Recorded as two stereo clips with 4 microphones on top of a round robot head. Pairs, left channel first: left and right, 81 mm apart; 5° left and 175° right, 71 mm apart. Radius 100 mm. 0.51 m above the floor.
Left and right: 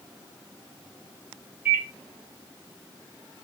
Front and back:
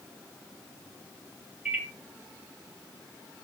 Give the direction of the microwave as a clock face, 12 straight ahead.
4 o'clock.